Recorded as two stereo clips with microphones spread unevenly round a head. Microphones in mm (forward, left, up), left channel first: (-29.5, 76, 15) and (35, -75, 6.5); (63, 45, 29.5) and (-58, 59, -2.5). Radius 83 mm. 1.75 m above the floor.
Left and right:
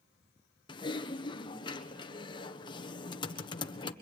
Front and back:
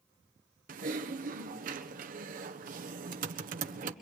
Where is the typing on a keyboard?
175° left, 1.4 m.